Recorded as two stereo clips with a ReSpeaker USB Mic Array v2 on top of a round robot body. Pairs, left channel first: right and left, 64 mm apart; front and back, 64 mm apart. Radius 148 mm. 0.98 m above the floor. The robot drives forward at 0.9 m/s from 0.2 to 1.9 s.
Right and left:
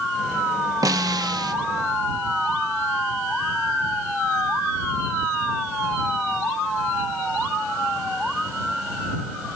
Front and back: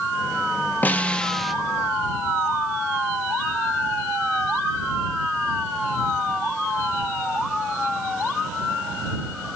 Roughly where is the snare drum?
Ahead left.